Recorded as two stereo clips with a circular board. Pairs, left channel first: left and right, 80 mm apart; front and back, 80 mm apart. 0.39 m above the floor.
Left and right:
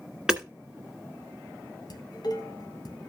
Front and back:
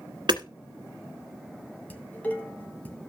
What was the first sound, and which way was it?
Hammering, 170° right.